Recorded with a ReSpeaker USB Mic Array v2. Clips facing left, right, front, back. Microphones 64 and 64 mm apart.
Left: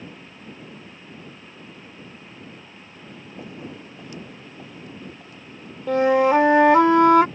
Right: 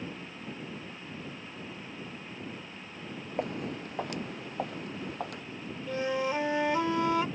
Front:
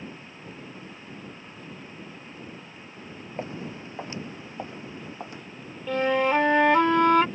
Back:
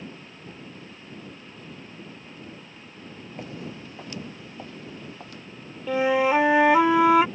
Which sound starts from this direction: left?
A flute, at 5.9 s.